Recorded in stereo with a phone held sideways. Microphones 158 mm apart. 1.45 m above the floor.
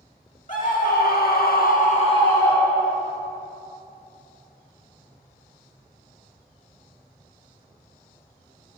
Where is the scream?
55° left (ahead or behind), 2.0 m; by 3.1 s 5° left (ahead or behind), 2 m.